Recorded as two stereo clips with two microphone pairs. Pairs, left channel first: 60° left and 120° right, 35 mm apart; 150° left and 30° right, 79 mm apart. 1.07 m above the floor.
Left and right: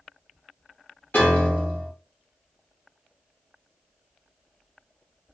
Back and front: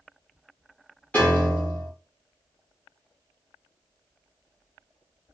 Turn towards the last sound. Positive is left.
turn(degrees=80)